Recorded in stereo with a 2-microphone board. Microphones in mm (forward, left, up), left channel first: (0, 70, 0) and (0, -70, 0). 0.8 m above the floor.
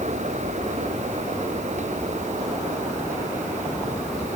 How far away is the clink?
I don't hear a clink.